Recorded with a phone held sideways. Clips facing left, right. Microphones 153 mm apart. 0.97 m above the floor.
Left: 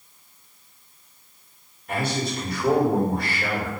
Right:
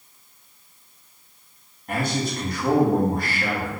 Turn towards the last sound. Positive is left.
turn(degrees=-45)  # may be behind; listen again after turning